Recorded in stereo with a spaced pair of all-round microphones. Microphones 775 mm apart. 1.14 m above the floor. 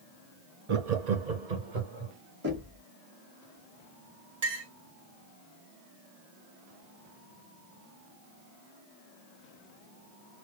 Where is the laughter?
45° right (ahead or behind), 0.7 m; by 2.1 s 75° right (ahead or behind), 2 m.